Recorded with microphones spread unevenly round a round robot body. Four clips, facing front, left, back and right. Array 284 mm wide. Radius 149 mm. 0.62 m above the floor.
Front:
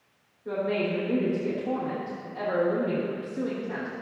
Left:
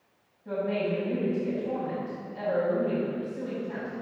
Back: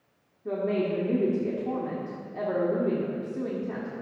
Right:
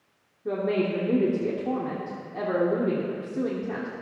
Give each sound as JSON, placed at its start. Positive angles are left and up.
{"t": 0.5, "sound": "a woman speaking", "azimuth_deg": -110, "distance_m": 1.6}